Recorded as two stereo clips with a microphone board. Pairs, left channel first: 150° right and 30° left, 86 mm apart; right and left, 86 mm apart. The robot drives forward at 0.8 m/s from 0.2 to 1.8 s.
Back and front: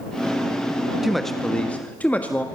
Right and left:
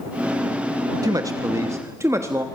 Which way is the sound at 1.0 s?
115° left.